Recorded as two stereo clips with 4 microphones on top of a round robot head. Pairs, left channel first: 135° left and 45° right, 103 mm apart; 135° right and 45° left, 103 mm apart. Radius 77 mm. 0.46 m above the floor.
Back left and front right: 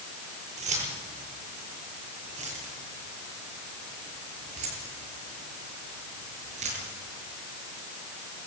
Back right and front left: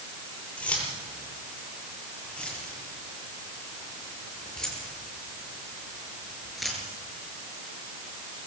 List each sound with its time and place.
0.6 s keys jangling: 60° right, 9 m; by 6.9 s 45° right, 6.5 m